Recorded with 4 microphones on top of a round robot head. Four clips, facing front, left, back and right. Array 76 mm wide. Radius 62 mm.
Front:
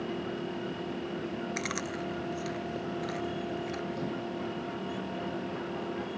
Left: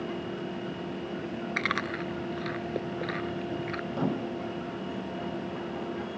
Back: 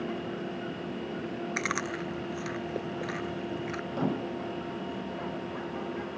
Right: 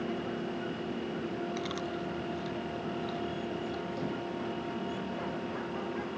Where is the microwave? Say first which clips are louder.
Left 5 dB, back 4 dB; 135° left.